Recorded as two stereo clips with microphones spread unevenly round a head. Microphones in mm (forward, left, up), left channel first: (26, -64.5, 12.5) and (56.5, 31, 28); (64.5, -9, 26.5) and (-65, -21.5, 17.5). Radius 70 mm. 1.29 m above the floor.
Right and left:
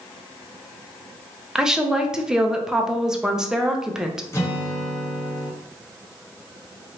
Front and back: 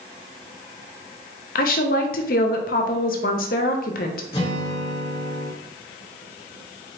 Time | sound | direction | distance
1.6 | a woman speaking | 10° right | 0.7 m
4.3 | a guitar | 40° right | 1.5 m